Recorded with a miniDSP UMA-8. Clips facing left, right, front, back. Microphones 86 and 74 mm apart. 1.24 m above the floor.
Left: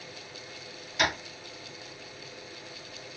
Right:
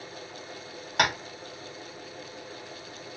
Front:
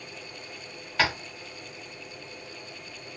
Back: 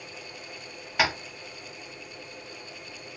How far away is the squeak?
I don't hear a squeak.